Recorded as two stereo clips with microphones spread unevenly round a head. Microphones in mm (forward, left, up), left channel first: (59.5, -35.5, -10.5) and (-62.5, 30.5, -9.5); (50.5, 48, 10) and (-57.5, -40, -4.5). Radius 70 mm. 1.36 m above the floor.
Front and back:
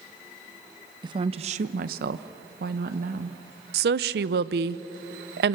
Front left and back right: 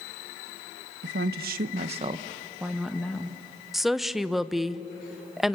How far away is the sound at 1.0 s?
About 1.1 m.